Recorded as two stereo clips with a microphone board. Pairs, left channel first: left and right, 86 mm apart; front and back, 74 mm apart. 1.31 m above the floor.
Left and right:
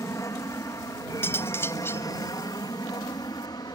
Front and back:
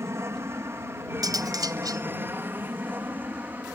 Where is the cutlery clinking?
150° left.